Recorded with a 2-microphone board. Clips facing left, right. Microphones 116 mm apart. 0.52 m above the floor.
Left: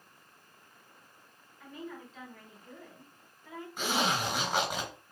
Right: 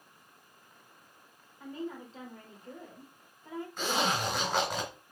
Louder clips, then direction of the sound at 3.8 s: Even; 10° left (ahead or behind).